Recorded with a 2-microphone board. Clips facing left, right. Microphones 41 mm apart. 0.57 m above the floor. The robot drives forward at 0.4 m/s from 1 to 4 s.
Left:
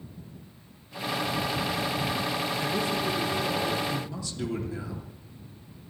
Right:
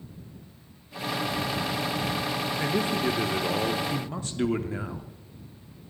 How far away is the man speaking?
About 0.9 m.